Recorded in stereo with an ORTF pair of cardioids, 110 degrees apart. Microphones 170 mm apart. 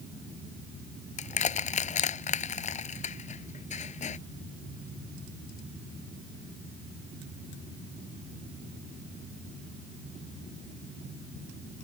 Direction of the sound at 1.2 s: 45° left.